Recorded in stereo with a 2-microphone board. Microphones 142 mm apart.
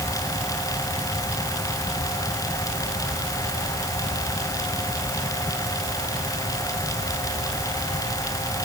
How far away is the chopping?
I don't hear chopping.